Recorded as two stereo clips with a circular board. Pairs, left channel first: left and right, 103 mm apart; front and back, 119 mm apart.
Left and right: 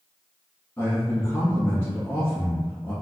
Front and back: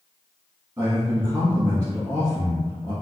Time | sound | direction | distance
0.8 | a man speaking | 140° left | 1.2 m